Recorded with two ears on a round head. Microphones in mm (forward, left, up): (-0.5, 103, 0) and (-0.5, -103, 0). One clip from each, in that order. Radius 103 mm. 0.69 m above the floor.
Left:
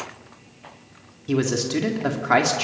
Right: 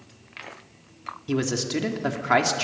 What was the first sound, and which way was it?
A man speaking, 5° right (ahead or behind).